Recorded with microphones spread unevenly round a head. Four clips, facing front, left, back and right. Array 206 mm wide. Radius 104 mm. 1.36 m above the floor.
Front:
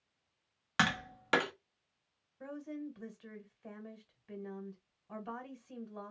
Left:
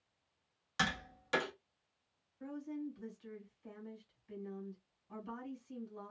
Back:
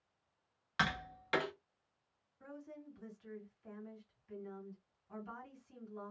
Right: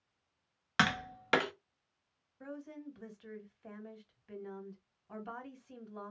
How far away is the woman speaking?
About 1.6 m.